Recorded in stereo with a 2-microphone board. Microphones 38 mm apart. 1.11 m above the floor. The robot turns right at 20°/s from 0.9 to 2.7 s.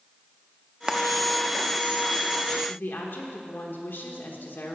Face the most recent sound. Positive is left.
turn(degrees=65)  # may be behind; listen again after turning